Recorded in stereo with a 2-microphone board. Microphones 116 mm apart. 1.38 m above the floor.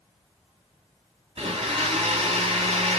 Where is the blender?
55° right (ahead or behind), 2 m.